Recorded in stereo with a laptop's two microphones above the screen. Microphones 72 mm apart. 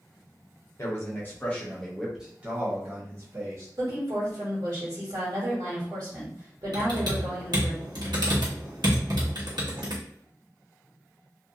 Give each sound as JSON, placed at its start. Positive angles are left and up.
{"t": 0.8, "sound": "a man speaking", "side_deg": 45, "distance_m": 1.0}
{"t": 3.8, "sound": "a woman speaking", "side_deg": -60, "distance_m": 1.3}
{"t": 6.7, "sound": "typing on a keyboard", "side_deg": -80, "distance_m": 1.0}